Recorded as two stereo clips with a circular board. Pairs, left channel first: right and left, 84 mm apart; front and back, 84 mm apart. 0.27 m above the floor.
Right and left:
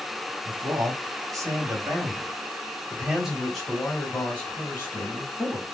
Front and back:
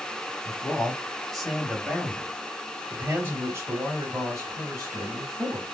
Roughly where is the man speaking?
Left.